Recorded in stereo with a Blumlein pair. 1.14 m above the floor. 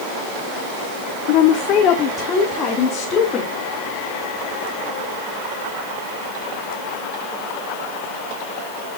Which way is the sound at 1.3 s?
45° left.